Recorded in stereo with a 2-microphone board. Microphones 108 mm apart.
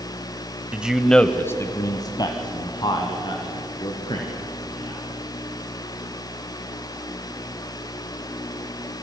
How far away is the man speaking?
About 1.0 m.